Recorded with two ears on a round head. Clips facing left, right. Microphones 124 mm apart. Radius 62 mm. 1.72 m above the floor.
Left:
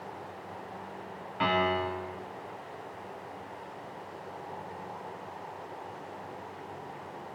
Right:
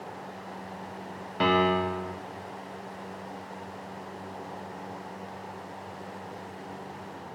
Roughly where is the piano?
Right.